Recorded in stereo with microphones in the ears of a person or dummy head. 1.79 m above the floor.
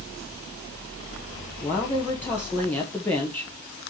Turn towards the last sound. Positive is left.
turn(degrees=15)  # may be behind; listen again after turning